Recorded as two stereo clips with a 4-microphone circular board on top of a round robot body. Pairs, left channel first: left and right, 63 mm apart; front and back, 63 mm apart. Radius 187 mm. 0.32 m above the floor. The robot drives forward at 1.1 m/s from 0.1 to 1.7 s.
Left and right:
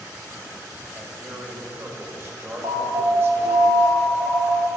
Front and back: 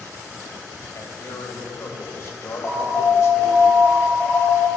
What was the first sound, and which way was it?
A man speaking, 30° right.